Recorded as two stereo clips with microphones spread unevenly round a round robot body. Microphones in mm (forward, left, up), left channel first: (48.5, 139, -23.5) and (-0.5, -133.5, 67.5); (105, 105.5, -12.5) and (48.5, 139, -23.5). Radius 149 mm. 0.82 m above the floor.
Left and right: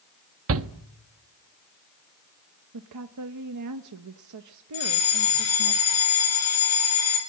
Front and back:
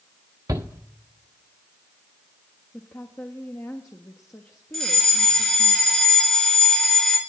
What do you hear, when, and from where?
0.5 s a shout: 150° right, 1.0 m
2.7 s a woman speaking: 95° right, 1.2 m
4.7 s a fire alarm: 55° left, 8 m